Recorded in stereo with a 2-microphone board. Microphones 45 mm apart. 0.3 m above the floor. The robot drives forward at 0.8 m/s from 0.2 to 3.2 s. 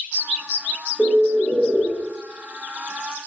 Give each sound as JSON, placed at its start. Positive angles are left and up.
{"t": 1.0, "sound": "a bird", "side_deg": 15, "distance_m": 1.0}